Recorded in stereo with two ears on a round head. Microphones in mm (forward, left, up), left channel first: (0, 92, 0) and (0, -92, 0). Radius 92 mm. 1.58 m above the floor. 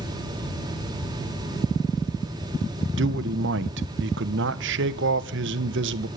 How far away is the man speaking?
About 1.2 m.